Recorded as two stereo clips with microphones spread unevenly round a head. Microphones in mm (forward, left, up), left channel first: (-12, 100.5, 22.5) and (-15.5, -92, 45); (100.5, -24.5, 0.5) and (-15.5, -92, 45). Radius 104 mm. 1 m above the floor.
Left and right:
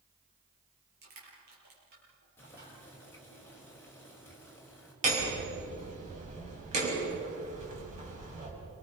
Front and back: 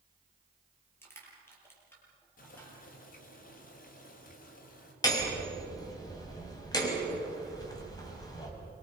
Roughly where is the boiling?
Ahead.